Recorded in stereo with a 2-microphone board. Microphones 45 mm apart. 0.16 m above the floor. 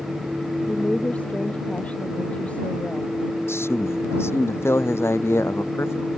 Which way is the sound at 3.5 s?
60° left (ahead or behind).